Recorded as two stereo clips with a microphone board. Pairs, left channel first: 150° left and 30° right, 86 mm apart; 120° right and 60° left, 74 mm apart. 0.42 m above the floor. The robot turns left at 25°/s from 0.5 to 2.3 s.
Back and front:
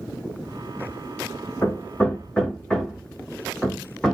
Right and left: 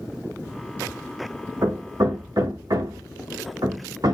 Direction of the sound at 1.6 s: 90° left.